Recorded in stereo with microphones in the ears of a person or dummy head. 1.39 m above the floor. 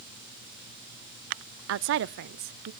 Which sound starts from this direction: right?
A woman speaking, at 1.7 s.